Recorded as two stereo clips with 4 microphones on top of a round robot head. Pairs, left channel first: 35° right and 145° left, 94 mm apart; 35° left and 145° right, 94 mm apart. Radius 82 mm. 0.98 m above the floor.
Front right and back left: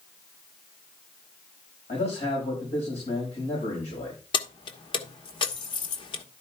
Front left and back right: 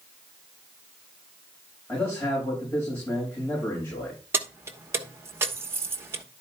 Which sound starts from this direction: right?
Keys jangling, at 4.3 s.